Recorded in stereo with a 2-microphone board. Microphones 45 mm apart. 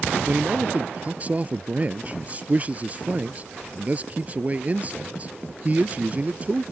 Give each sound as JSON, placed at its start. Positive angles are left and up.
{"t": 0.3, "sound": "a man speaking", "side_deg": -30}